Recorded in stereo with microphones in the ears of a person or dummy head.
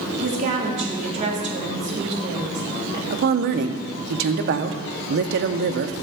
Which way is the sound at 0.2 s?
35° right (ahead or behind).